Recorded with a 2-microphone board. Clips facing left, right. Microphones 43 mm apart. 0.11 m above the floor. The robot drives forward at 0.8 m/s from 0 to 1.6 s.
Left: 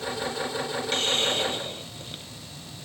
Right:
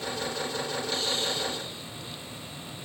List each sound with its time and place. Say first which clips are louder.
0.9 s a hiss: left 7 dB; 55° left (ahead or behind); by 2.3 s 50° left (ahead or behind)